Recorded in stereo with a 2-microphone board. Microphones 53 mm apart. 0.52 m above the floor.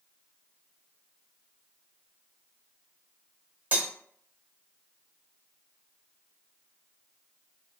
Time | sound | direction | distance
3.7 | cutlery clinking | 30° right (ahead or behind) | 1.0 m